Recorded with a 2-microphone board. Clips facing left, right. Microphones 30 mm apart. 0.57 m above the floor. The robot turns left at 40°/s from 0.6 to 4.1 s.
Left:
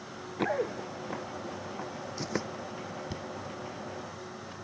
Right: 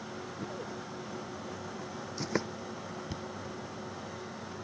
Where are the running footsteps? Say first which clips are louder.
Left 13 dB; 80° left; by 2.5 s 15° right (ahead or behind).